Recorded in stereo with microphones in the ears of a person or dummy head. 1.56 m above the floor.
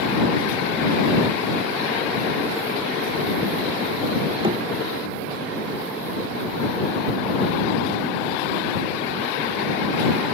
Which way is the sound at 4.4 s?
35° right (ahead or behind).